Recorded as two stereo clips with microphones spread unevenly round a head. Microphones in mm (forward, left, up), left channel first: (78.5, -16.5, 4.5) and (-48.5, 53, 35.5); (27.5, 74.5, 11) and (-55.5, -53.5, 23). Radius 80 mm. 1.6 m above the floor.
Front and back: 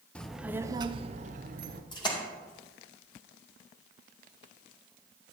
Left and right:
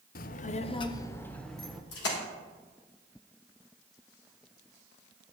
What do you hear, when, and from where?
0.1 s a child speaking: 60° left, 0.6 m; by 1.8 s 150° left, 0.9 m
1.9 s a splash: 35° left, 2.5 m